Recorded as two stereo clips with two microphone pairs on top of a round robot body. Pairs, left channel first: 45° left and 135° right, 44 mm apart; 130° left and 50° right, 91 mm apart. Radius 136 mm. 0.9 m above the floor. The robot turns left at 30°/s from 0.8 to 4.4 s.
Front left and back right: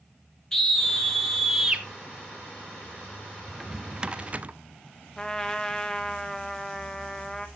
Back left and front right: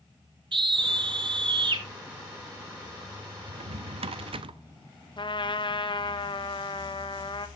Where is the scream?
35° right, 1.9 m; by 1.9 s 65° right, 1.9 m.